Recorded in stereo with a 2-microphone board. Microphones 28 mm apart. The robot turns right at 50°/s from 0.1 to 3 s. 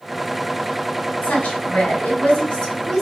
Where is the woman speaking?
70° left (ahead or behind), 3 m; by 3.0 s 20° left (ahead or behind), 3 m.